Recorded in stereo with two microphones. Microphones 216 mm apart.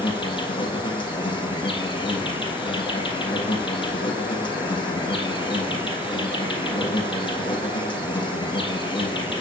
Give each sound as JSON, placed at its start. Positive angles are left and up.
{"t": 0.0, "sound": "an insect", "side_deg": 25, "distance_m": 3.0}